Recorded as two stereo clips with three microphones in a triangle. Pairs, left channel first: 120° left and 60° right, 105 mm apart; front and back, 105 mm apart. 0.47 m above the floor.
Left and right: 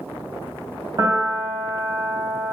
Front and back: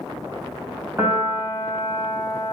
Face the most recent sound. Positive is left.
turn(degrees=-110)